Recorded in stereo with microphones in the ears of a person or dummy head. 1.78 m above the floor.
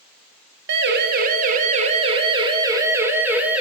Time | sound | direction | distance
0.7 | a siren | 65° right (ahead or behind) | 3 m